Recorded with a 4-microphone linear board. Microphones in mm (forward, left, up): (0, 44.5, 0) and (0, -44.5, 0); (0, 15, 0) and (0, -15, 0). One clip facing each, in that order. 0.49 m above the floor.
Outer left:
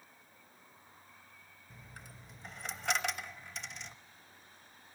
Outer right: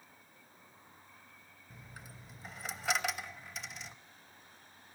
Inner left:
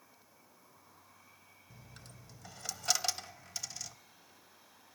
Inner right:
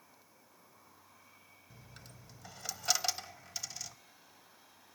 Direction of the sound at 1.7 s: 5° right (ahead or behind).